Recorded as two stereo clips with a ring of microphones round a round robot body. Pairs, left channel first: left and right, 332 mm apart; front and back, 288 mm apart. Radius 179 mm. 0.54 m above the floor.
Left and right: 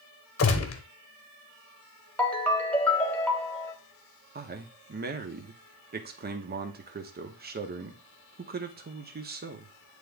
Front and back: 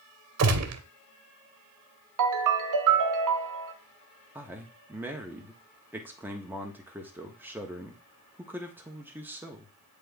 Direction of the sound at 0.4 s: 140° left.